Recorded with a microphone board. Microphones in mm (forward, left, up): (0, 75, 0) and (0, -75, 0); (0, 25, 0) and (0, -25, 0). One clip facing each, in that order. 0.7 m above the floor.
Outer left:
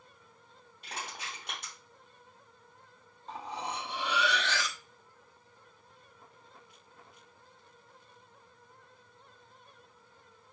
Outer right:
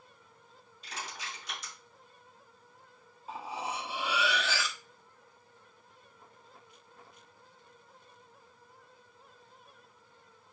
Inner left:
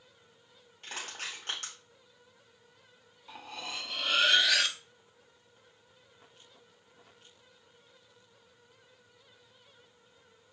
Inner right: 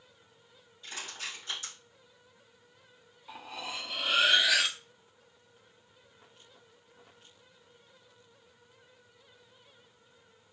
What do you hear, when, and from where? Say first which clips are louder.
0.8 s crushing: outer left 1 dB, inner left 1 dB; 60° left (ahead or behind), 3 m
3.3 s cutlery clinking: outer right 1 dB, inner right 1 dB; 5° right (ahead or behind), 0.5 m